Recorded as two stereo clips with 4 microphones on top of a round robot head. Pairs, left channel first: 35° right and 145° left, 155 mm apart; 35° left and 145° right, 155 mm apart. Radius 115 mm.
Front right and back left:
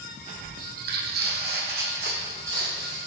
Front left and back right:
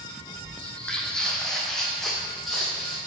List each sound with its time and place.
0.6 s footsteps: 115° left, 0.9 m; by 3.0 s 125° left, 2.5 m